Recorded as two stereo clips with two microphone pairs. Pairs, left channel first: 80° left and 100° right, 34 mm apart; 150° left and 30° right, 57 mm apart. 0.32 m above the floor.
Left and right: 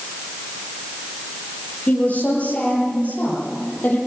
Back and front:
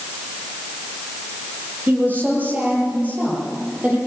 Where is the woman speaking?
25° left, 8.5 m; by 4.0 s 30° left, 11 m.